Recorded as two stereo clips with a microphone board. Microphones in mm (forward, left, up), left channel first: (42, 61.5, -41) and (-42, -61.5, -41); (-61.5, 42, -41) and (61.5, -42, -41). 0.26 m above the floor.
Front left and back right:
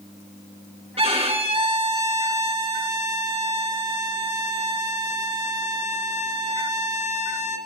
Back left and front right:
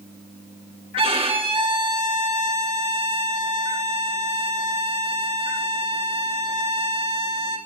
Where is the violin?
80° right, 2.5 m.